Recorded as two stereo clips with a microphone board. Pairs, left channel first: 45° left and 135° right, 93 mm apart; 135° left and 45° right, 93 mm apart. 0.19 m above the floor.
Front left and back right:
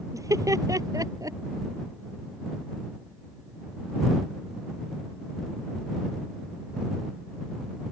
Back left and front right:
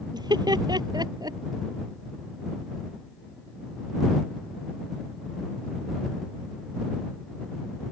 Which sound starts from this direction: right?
Laughter, at 0.1 s.